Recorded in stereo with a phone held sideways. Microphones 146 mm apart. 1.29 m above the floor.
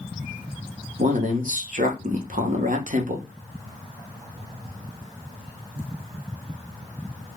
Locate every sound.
1.0 s a man speaking: 65° right (ahead or behind), 0.8 m